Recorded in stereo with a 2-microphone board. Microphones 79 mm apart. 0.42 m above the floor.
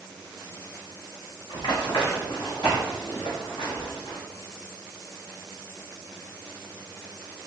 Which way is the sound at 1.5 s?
75° left (ahead or behind).